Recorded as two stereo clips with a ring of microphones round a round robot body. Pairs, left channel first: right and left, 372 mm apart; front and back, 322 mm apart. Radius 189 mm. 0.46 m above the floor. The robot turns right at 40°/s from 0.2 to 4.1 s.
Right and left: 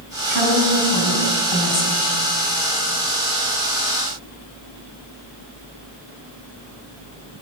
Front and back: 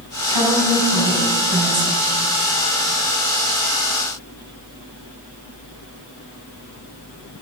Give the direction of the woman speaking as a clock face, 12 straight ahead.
5 o'clock.